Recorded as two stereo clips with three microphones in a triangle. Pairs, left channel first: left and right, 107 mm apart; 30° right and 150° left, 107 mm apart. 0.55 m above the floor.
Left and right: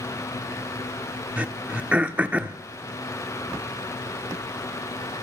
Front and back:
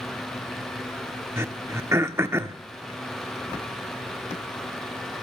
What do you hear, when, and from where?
1.4 s throat clearing: 160° right, 1.2 m